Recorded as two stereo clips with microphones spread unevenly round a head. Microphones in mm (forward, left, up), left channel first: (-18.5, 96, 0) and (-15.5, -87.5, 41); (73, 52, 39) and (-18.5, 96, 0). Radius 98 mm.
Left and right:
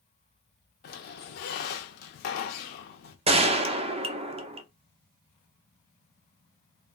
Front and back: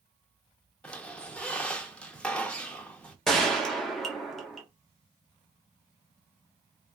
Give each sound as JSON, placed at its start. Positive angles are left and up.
{"t": 0.8, "sound": "a squeak", "azimuth_deg": 45, "distance_m": 0.6}
{"t": 3.3, "sound": "a gunshot", "azimuth_deg": -145, "distance_m": 0.5}